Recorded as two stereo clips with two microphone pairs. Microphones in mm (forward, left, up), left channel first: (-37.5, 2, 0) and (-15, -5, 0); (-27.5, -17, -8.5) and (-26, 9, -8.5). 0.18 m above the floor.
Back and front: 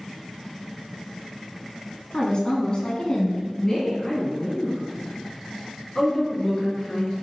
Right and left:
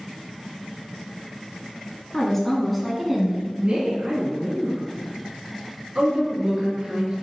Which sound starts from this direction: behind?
A woman speaking, at 2.1 s.